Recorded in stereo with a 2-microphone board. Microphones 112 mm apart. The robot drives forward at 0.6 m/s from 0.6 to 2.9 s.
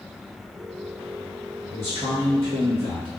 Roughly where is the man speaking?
Right.